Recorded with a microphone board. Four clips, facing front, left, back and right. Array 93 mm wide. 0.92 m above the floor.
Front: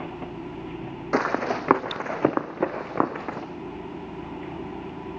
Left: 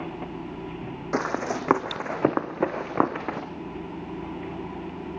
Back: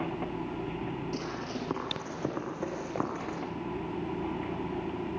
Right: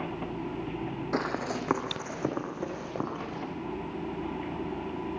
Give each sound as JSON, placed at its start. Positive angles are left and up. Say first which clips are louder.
{"t": 1.1, "sound": "running footsteps", "louder": "left 5 dB, front 11 dB", "azimuth_deg": 15, "distance_m": 2.0}